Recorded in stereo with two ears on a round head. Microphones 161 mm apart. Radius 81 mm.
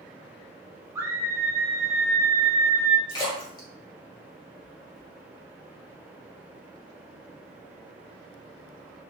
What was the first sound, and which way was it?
A scream, 15° right (ahead or behind).